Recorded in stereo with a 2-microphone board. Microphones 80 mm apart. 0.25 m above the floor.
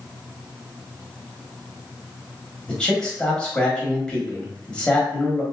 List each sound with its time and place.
2.7 s a man speaking: 10° left (ahead or behind), 1.0 m